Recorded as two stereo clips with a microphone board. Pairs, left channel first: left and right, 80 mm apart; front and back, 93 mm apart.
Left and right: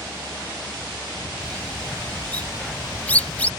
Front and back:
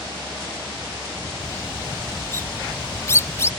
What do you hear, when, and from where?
1.4 s a bird: 30° left